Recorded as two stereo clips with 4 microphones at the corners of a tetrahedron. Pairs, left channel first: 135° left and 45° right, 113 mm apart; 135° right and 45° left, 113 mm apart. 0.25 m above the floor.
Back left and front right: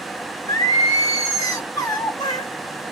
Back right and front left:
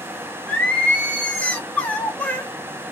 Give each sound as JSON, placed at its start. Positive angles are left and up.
{"t": 0.5, "sound": "singing", "azimuth_deg": 155, "distance_m": 1.1}